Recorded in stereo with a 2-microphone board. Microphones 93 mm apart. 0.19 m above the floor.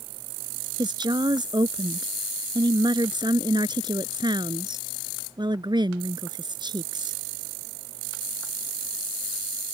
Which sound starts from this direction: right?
A woman speaking, at 0.8 s.